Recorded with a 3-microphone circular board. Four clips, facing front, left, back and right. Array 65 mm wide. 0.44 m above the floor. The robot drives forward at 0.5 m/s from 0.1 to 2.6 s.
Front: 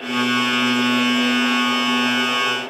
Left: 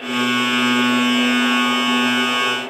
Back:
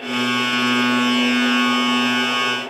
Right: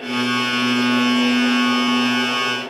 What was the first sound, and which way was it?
Only background noise.